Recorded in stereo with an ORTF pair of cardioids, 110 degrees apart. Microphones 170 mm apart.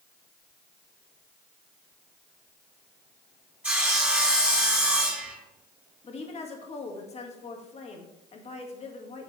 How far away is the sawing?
About 4 m.